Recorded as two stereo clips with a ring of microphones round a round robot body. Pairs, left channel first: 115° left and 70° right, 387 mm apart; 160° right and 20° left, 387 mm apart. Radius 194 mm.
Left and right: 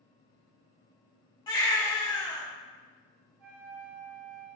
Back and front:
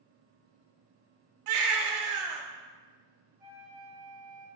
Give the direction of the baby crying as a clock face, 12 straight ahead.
11 o'clock.